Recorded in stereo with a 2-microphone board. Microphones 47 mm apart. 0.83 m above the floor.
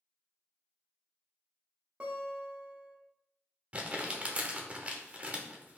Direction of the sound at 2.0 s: 20° right (ahead or behind).